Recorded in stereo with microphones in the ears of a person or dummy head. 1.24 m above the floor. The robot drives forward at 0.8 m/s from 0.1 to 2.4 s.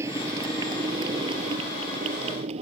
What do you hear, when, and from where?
0.0 s a motorcycle: 15° right (ahead or behind); by 2.6 s 35° right (ahead or behind)